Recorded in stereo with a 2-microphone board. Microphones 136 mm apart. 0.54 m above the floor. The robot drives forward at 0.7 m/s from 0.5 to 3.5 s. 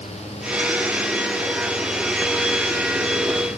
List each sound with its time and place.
Only background noise.